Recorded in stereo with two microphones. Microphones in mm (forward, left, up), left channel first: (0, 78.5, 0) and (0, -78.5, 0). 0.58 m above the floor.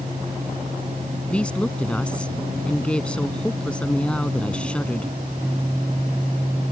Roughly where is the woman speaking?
Centre.